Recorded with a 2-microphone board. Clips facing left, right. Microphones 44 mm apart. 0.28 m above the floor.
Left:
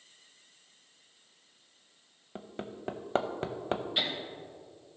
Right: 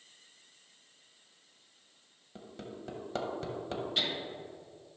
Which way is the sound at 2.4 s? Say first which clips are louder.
Left 4 dB; 40° left (ahead or behind).